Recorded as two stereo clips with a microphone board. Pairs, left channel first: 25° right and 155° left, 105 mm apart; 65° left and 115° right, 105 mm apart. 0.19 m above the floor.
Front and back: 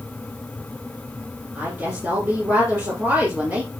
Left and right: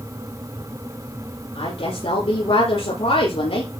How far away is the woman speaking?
About 7.5 m.